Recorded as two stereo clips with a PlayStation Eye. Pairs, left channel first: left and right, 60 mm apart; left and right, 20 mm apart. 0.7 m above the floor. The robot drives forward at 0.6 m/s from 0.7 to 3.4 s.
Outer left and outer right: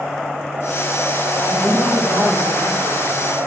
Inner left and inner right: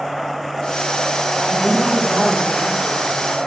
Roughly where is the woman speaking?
Right.